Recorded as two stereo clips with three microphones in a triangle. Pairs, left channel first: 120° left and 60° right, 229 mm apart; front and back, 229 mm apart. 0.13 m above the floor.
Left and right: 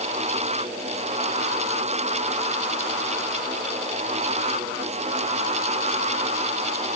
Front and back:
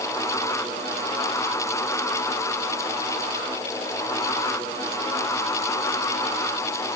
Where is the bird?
No bird in this recording.